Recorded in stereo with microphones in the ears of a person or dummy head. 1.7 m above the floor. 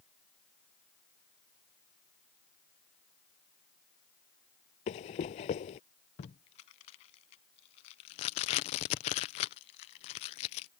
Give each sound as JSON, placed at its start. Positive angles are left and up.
{"t": 4.9, "sound": "running footsteps", "side_deg": 45}
{"t": 6.2, "sound": "tape being pulled", "side_deg": 50}